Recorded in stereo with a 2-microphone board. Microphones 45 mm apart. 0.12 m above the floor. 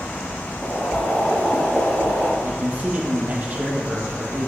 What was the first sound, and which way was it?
Boiling, 10° left (ahead or behind).